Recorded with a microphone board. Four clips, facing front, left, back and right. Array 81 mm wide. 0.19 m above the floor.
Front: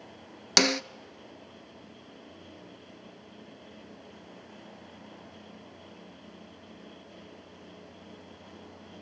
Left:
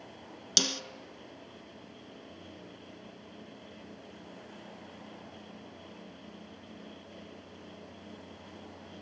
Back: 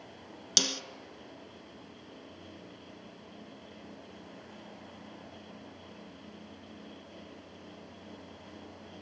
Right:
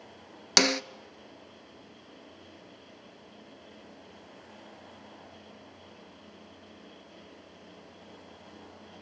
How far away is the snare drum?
About 0.7 m.